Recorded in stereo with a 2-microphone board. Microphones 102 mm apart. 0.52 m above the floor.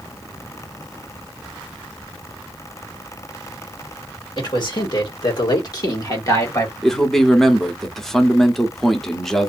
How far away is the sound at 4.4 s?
About 1.9 m.